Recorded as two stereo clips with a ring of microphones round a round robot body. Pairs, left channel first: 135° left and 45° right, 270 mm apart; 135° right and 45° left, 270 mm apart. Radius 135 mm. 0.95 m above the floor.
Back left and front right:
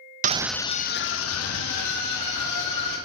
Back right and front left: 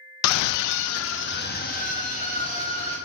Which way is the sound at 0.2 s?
105° right.